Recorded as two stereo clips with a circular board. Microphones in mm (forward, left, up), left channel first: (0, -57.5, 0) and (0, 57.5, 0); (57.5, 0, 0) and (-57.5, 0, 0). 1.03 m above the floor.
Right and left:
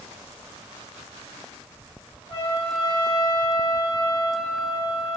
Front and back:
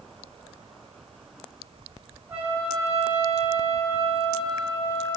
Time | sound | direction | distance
2.3 | a trumpet | 105° right | 0.8 m